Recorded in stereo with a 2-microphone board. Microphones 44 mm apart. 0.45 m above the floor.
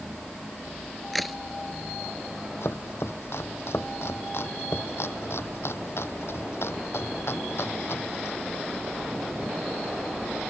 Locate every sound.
1.1 s a crack: centre (ahead or behind)
2.6 s chopping: 75° left (ahead or behind)